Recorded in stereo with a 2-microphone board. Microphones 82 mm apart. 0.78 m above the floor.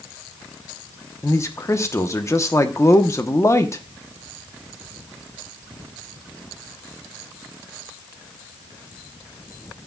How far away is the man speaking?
About 1.0 m.